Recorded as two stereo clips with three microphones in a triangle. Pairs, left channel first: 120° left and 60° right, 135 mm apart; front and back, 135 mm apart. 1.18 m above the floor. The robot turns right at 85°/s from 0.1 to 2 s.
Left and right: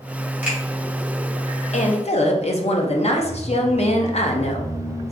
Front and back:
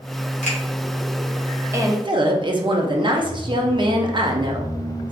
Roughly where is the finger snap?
Ahead.